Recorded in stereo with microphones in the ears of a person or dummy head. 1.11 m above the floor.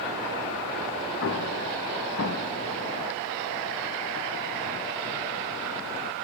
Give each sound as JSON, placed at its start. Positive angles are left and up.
{"t": 1.2, "sound": "an explosion", "side_deg": 50, "distance_m": 0.7}